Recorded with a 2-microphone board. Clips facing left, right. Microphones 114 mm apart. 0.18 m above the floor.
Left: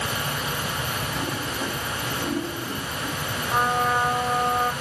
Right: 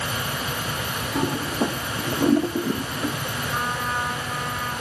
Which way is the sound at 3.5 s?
85° left.